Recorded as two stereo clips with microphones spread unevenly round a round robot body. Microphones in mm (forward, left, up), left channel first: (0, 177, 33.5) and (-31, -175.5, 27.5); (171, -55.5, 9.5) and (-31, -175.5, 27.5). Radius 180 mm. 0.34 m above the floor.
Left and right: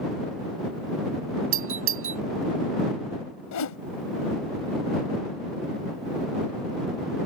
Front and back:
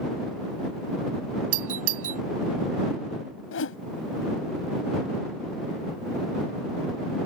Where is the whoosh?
50° left.